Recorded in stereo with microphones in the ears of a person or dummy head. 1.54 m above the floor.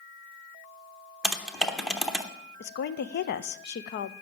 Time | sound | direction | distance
1.2 | typing on a keyboard | 5° right (ahead or behind) | 0.8 m
2.6 | a woman speaking | 55° left (ahead or behind) | 0.6 m